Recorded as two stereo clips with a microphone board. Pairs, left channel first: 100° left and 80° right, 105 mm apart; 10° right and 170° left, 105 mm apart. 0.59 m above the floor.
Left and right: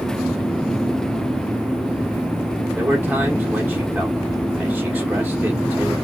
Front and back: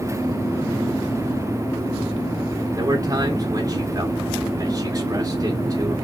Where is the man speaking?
155° right, 1.5 m.